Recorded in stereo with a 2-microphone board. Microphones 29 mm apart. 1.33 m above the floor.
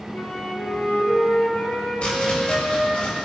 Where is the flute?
80° left, 5.5 m.